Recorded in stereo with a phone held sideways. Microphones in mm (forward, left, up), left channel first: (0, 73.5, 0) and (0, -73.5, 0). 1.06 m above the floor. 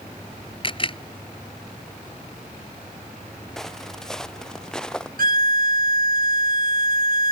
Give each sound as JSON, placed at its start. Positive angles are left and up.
{"t": 0.6, "sound": "a camera shutter", "side_deg": 35}
{"t": 3.6, "sound": "footsteps", "side_deg": 5}
{"t": 5.2, "sound": "a violin", "side_deg": -75}